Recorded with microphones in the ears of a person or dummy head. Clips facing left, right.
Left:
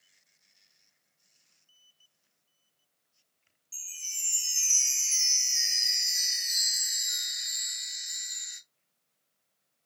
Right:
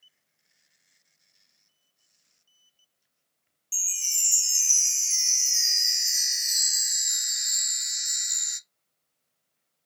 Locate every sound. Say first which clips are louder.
3.7 s a chime: right 8 dB; 65° right (ahead or behind), 0.5 m